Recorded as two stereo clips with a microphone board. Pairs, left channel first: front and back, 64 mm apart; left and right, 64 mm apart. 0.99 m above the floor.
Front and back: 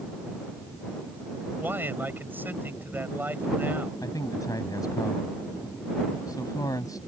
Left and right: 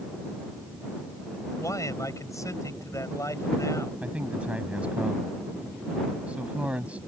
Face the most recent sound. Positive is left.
turn(degrees=-20)